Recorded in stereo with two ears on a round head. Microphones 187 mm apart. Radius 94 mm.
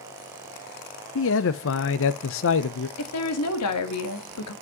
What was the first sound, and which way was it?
A man speaking, 65° left (ahead or behind).